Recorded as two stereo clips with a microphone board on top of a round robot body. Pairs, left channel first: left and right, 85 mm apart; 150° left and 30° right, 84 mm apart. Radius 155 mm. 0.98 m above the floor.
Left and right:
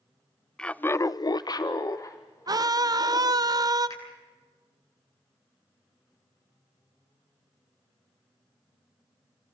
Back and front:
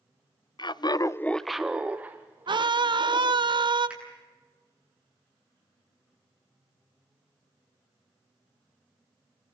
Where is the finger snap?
45° left, 9 m.